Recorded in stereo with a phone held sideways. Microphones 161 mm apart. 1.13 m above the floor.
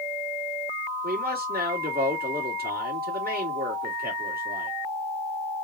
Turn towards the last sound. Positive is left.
turn(degrees=-75)  # may be behind; listen again after turning